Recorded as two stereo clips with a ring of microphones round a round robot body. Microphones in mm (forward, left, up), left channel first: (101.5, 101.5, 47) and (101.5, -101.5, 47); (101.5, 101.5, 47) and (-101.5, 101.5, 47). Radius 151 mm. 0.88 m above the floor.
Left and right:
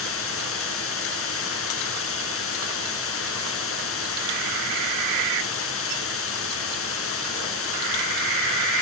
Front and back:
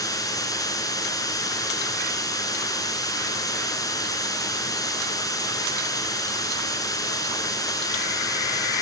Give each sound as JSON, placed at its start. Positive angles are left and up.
{"t": 0.0, "sound": "running water", "azimuth_deg": 75, "distance_m": 3.0}